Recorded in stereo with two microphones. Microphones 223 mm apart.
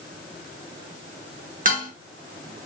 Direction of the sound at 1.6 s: 40° right (ahead or behind).